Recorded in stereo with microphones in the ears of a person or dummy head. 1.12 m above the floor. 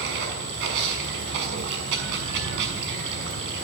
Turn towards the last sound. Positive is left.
turn(degrees=-65)  # may be behind; listen again after turning